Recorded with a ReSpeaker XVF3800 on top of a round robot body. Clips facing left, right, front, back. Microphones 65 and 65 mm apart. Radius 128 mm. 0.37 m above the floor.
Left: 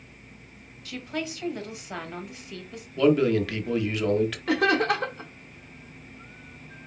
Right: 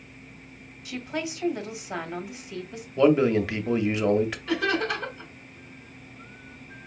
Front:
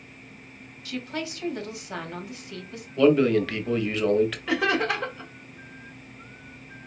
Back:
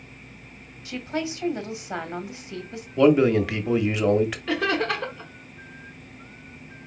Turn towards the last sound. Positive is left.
turn(degrees=80)